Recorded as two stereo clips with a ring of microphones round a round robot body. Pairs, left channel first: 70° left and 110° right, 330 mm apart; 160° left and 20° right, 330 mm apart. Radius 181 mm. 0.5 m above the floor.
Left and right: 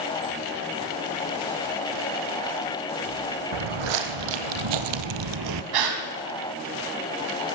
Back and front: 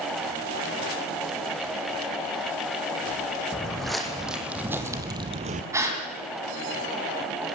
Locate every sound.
3.5 s footsteps: 115° right, 1.7 m; by 5.6 s 85° right, 0.6 m
5.7 s a gasp: 105° right, 2.5 m